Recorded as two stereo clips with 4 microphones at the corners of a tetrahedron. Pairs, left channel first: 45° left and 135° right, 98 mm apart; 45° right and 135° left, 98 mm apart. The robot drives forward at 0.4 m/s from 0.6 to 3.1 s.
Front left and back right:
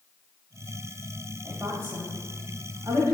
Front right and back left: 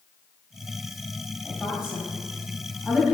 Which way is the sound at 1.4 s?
145° right.